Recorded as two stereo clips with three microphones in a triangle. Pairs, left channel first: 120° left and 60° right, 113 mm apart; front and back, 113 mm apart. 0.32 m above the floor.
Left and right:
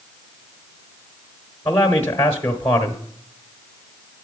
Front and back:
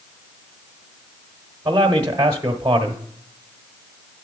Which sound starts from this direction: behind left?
A man speaking, at 1.6 s.